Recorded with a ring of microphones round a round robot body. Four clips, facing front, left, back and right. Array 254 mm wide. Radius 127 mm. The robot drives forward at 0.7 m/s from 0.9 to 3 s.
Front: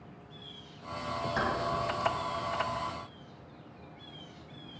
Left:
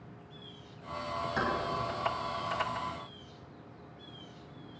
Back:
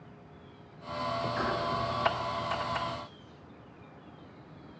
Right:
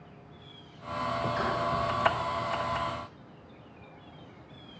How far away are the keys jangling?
About 4.5 m.